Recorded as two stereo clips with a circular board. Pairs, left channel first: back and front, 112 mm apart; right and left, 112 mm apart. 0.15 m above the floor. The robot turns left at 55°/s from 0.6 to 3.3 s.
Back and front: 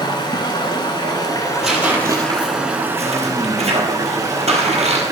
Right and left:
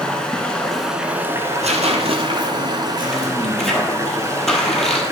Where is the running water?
170° right, 1.0 m; by 5.1 s 45° left, 1.0 m.